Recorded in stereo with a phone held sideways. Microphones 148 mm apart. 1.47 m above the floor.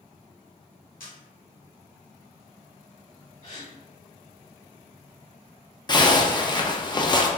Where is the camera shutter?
70° left (ahead or behind), 1.4 m.